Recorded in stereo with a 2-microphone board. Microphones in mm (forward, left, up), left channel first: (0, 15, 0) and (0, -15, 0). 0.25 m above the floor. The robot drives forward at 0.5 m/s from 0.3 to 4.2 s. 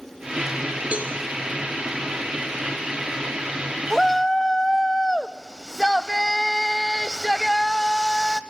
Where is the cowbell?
50° right (ahead or behind), 3.5 m; by 1.1 s 45° right (ahead or behind), 4 m.